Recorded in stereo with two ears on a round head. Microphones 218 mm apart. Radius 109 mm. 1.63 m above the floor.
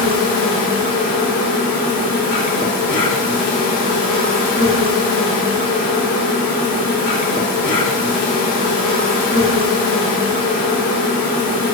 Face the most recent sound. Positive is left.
turn(degrees=35)  # may be behind; listen again after turning